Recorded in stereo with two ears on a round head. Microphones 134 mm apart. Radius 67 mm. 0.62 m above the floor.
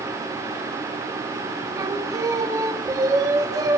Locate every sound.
1.8 s singing: 25° right (ahead or behind), 0.9 m